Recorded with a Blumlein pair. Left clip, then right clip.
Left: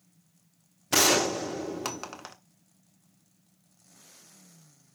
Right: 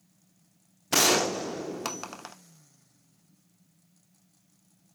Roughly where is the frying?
No frying in this recording.